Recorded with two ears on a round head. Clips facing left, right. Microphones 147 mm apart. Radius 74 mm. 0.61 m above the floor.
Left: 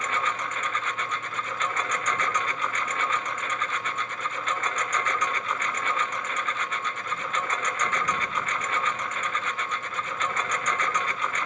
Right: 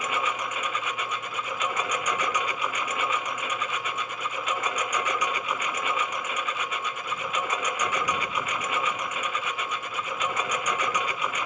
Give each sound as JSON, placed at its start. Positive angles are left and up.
{"t": 0.0, "sound": "a lawn mower", "side_deg": -10}